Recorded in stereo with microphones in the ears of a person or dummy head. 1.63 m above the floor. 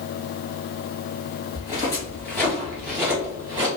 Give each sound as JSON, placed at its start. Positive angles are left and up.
{"t": 1.5, "sound": "footsteps", "side_deg": 25, "distance_m": 1.9}